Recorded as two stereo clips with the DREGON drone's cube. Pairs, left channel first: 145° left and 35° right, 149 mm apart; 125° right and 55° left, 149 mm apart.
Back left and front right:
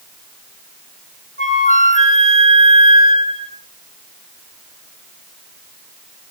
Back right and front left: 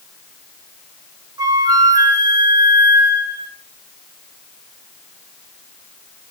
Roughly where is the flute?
Behind left.